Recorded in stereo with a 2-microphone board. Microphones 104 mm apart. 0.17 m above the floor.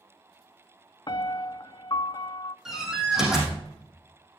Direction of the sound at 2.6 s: 5° right (ahead or behind).